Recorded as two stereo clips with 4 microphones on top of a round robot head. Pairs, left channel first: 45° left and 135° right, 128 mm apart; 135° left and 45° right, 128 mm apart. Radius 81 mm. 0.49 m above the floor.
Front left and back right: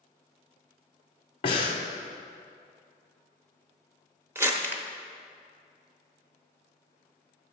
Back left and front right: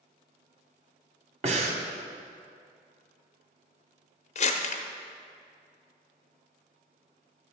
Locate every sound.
1.4 s breathing: 5° right, 1.0 m
4.3 s crumpling: 155° left, 0.9 m